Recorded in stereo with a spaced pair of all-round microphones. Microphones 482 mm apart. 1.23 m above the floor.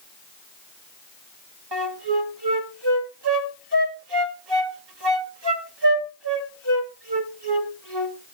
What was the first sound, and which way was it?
A flute, 55° right (ahead or behind).